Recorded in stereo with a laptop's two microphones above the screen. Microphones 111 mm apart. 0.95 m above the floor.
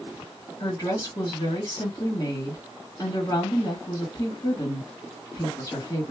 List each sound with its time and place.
0.6 s a woman speaking: 35° left (ahead or behind), 1.6 m